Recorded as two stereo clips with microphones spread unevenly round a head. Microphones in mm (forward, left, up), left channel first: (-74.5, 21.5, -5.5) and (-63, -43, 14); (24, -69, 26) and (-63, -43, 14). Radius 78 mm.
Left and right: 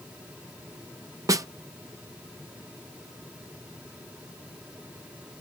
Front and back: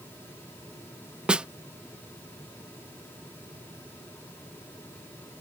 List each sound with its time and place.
1.3 s a snare drum: 120° right